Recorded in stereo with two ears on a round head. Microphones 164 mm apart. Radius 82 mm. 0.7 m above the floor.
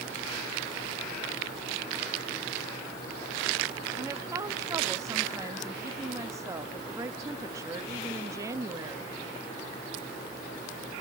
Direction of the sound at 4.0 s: 15° right (ahead or behind).